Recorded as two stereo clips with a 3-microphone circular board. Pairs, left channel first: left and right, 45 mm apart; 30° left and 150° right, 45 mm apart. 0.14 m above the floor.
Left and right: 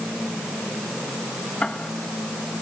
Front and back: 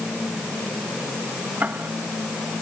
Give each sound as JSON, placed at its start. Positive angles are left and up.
{"t": 1.6, "sound": "ticking", "azimuth_deg": 160}